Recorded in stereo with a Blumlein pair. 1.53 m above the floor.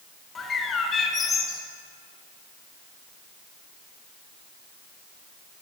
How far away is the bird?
About 0.7 m.